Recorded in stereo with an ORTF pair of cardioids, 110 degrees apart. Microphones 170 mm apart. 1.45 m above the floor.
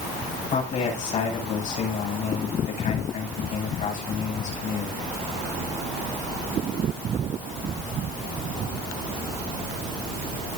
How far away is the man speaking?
About 10 m.